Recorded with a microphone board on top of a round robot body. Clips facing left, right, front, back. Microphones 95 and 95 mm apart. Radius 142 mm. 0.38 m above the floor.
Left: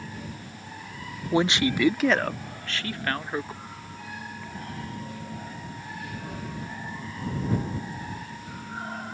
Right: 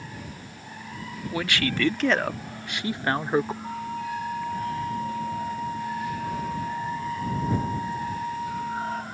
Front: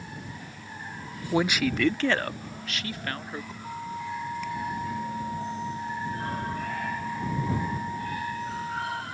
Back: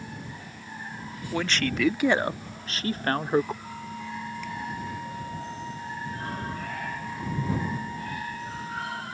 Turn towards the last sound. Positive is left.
turn(degrees=-75)